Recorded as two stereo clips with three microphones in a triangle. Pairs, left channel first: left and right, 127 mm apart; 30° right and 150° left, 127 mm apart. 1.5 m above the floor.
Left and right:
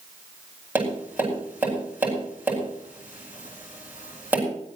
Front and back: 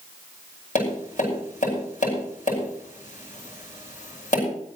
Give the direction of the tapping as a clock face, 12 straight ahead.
12 o'clock.